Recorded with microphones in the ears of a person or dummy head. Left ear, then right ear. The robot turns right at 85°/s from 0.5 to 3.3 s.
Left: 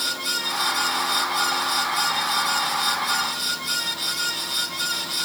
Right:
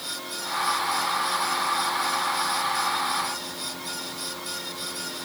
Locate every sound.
Only background noise.